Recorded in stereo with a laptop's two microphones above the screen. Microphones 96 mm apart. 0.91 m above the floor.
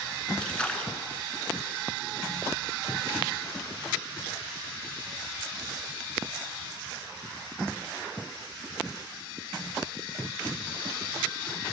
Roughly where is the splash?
Centre.